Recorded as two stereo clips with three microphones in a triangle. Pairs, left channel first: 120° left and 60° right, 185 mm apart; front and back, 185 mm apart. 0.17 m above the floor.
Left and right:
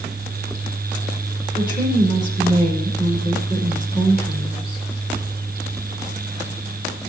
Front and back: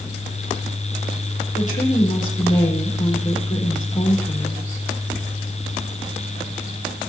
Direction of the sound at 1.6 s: 50° left.